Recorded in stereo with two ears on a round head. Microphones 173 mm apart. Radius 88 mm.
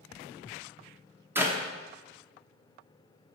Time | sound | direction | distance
1.4 | a clap | 10° right (ahead or behind) | 1.0 m